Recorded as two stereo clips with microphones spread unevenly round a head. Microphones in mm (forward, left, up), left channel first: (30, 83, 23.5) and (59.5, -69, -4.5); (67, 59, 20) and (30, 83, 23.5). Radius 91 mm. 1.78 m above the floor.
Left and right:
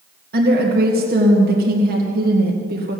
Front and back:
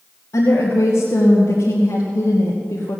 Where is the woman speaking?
55° right, 2.5 m.